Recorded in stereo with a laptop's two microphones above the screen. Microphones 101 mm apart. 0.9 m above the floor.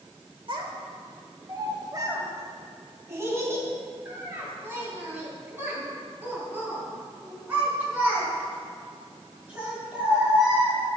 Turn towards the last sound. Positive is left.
turn(degrees=-10)  # may be behind; listen again after turning